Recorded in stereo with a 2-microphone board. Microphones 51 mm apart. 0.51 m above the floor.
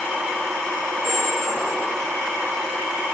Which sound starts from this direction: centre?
A squeak, at 1.0 s.